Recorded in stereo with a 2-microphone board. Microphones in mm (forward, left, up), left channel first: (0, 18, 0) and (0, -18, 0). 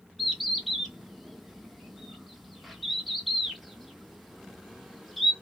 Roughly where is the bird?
Centre.